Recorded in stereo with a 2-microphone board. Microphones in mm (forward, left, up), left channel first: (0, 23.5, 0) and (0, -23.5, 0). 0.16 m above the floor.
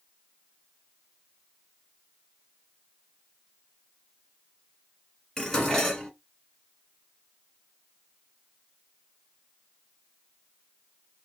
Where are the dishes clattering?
10° left (ahead or behind), 1.2 m.